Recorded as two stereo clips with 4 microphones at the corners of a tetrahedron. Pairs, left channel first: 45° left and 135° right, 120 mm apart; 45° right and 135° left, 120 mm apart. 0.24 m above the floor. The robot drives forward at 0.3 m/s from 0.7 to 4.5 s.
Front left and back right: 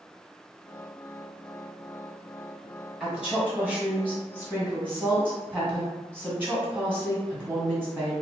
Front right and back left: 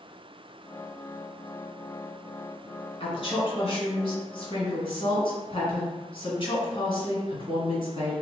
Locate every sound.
3.0 s a woman speaking: 50° right, 2.0 m; by 8.1 s 65° right, 1.8 m